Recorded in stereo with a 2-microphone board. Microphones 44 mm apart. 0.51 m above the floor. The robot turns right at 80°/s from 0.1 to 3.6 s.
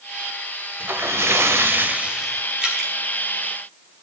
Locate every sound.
0.8 s a splash: 130° right, 1.4 m; by 2.4 s straight ahead, 1.4 m
2.6 s dripping: 20° right (ahead or behind), 3.5 m; by 2.9 s 5° left (ahead or behind), 3.5 m